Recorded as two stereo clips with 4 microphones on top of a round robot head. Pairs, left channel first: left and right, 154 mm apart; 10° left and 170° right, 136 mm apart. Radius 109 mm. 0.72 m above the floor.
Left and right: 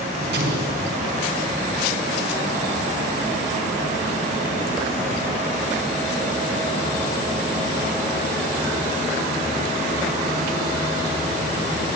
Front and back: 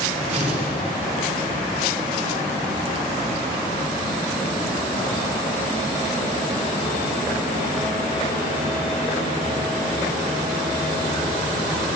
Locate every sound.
0.3 s an explosion: 110° right, 5 m